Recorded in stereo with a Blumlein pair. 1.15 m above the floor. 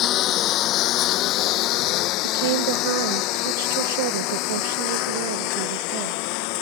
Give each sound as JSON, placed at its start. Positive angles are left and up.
{"t": 0.0, "sound": "a lawn mower", "azimuth_deg": 35}
{"t": 2.2, "sound": "a woman speaking", "azimuth_deg": -50}